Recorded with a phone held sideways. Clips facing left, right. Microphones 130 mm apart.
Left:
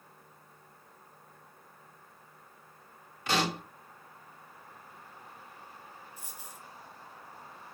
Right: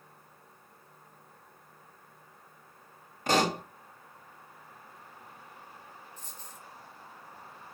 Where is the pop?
45° right (ahead or behind), 1.4 m.